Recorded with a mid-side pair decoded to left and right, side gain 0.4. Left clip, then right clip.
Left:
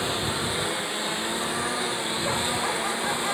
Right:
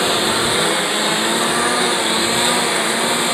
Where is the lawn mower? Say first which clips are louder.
Right 11 dB; 65° right.